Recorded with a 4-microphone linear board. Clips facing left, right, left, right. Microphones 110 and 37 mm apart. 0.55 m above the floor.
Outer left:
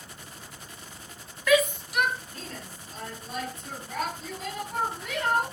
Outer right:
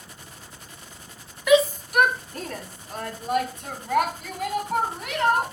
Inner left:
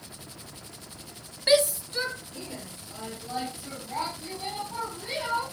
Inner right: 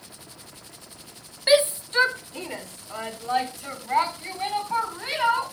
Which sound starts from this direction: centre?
A shout, at 1.5 s.